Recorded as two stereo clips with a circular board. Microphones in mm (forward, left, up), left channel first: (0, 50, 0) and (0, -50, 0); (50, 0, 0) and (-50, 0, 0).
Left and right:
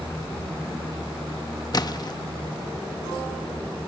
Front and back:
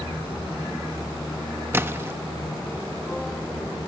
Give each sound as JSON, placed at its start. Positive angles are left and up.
{"t": 1.7, "sound": "a splash", "azimuth_deg": 120, "distance_m": 0.7}